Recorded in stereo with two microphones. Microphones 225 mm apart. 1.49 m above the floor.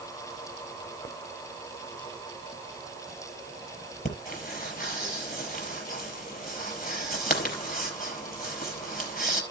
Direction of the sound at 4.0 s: 40° left (ahead or behind).